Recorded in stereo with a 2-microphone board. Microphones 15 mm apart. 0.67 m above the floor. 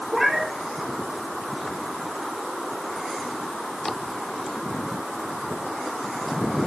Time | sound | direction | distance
0.1 | a cat meowing | 15° right (ahead or behind) | 5 m